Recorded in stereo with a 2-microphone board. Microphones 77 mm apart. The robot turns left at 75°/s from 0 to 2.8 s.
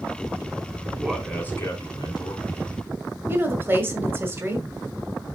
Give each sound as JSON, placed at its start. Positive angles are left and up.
{"t": 1.0, "sound": "a man speaking", "azimuth_deg": -170, "distance_m": 2.5}
{"t": 3.3, "sound": "a woman speaking", "side_deg": -25, "distance_m": 1.5}